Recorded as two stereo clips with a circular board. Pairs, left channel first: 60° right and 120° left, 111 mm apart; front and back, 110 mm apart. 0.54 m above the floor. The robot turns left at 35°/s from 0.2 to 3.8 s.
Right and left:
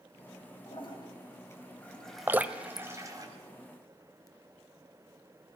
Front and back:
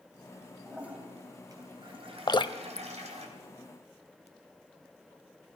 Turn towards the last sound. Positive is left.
turn(degrees=-5)